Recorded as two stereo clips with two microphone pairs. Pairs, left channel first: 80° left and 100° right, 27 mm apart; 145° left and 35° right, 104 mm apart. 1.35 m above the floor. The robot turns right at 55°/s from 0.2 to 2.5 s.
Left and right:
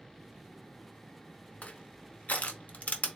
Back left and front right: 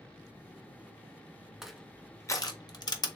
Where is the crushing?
50° left, 0.6 m; by 3.2 s 100° left, 0.6 m.